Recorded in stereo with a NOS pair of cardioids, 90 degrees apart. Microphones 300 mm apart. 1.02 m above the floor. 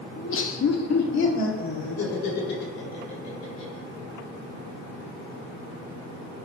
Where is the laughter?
30° left, 1.0 m; by 3.8 s 65° left, 6.5 m.